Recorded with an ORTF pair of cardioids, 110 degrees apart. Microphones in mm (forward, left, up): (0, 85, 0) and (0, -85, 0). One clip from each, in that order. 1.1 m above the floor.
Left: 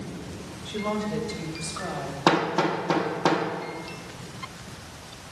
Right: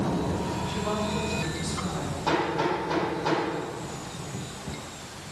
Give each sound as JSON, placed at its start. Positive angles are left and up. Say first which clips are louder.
{"t": 0.7, "sound": "a woman speaking", "louder": "left 4 dB", "azimuth_deg": 45, "distance_m": 2.0}
{"t": 2.3, "sound": "hammering", "louder": "left 3 dB", "azimuth_deg": 65, "distance_m": 1.5}